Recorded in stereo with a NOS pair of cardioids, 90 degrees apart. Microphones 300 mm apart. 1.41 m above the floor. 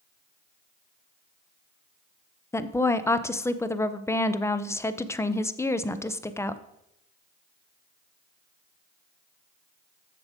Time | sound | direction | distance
2.5 | a woman speaking | 10° left | 0.6 m